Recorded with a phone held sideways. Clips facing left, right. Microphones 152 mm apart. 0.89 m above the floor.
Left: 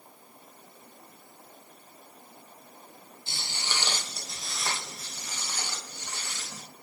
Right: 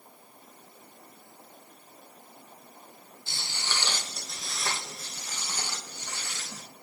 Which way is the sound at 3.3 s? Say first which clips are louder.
Even; 25° left (ahead or behind).